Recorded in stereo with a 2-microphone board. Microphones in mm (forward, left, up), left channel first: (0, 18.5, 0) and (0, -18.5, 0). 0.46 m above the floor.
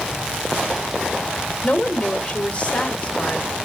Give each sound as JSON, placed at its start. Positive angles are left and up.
{"t": 1.6, "sound": "a woman speaking", "side_deg": 35, "distance_m": 1.4}